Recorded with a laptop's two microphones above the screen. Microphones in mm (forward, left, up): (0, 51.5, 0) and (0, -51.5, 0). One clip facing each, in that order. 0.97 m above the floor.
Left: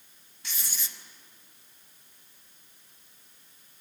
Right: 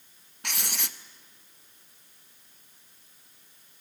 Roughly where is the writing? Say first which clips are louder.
Right 6 dB; right.